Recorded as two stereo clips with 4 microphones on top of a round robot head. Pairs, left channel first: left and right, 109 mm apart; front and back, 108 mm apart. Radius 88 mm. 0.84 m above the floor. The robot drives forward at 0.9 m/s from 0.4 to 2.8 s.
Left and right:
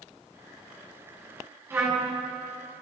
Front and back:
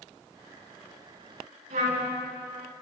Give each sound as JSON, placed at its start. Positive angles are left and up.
{"t": 1.7, "sound": "a trumpet", "azimuth_deg": -160, "distance_m": 7.0}